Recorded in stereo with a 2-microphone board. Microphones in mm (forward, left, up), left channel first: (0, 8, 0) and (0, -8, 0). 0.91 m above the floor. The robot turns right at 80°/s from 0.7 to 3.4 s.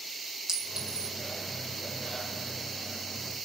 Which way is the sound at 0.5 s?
55° right (ahead or behind).